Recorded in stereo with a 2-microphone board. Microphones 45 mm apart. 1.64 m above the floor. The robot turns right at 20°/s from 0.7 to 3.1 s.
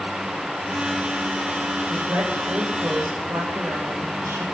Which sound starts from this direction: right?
A woman speaking, at 1.9 s.